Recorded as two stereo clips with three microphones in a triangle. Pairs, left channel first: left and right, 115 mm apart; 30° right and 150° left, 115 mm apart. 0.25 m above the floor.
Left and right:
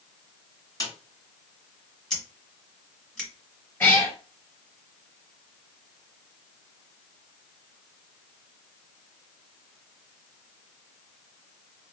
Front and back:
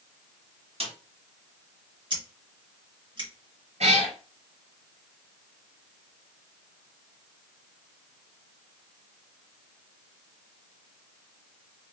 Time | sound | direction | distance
0.8 | a snare drum | 145° left | 1.6 m
2.1 | scissors | 170° left | 1.6 m
3.8 | a cat meowing | 160° left | 1.8 m